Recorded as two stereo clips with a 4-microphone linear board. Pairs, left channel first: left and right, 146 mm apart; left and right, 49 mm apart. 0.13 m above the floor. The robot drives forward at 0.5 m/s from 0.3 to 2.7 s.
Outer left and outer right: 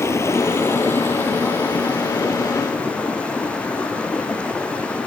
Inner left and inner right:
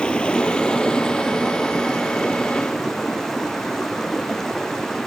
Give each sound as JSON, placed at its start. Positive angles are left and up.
{"t": 0.0, "sound": "running water", "side_deg": 20, "distance_m": 0.7}